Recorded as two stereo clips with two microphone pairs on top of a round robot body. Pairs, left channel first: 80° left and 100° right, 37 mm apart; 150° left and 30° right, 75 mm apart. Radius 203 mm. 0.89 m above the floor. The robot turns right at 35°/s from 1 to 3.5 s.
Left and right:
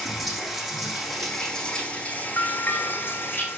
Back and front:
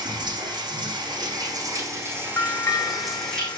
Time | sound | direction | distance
0.0 | running water | 10° right | 7.5 m
2.4 | a bell | 90° left | 1.3 m